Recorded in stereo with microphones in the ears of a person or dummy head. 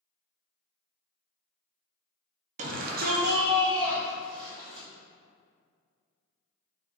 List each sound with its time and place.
2.6 s a shout: 40° right (ahead or behind), 0.5 m; by 4.9 s 10° right (ahead or behind), 1.2 m